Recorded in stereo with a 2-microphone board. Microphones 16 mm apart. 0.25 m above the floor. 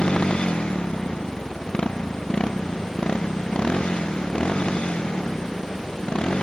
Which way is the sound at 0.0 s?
65° left (ahead or behind).